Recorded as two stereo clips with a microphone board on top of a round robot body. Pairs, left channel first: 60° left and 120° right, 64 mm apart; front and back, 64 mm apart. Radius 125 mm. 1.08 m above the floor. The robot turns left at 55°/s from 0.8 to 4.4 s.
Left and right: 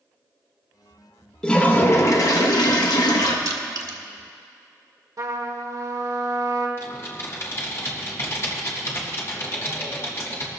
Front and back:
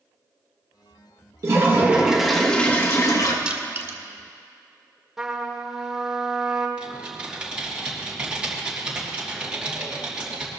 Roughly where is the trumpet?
Right.